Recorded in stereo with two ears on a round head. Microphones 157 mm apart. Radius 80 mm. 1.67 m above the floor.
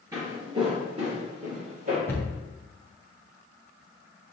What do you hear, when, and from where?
0.1 s footsteps: 20° right (ahead or behind), 1.7 m; by 2.0 s 45° right (ahead or behind), 2.5 m
2.1 s a cupboard door: 15° left (ahead or behind), 0.7 m